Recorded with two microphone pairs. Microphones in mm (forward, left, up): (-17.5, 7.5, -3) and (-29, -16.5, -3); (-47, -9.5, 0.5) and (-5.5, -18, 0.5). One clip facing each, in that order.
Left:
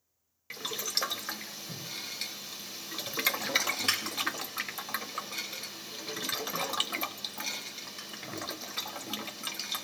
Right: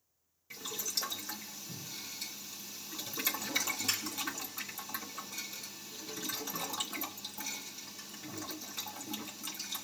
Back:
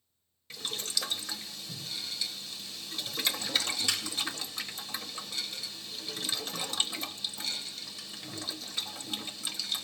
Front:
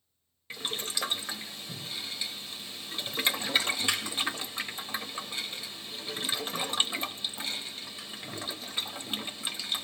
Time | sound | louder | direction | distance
0.5 | boiling | left 5 dB, front 2 dB | 50° left | 0.9 m